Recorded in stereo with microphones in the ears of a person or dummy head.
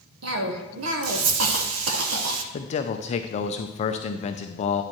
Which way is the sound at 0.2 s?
85° right.